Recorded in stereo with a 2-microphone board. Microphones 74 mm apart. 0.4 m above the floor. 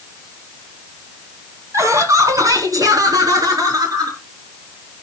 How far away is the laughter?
About 2.5 m.